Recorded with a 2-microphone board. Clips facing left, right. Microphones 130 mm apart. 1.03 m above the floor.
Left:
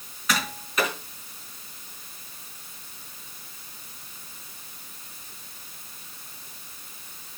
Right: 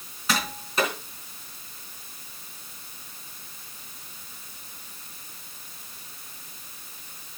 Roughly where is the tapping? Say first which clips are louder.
Even; right.